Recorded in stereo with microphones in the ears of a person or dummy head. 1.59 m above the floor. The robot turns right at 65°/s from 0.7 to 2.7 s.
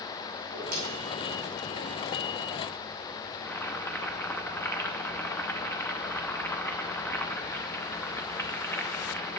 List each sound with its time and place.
0.4 s a whoosh: 50° right (ahead or behind), 3 m
3.4 s boiling: 5° left (ahead or behind), 0.5 m